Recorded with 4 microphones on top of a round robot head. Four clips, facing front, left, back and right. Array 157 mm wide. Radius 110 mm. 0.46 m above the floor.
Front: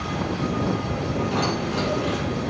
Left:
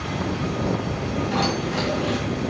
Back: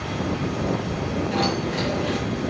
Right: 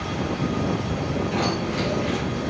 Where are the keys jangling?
50° left, 3 m.